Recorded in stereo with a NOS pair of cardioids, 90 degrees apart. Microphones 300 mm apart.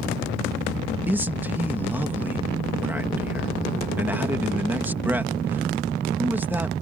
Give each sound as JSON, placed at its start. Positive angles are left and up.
{"t": 1.1, "sound": "a man speaking", "azimuth_deg": -5}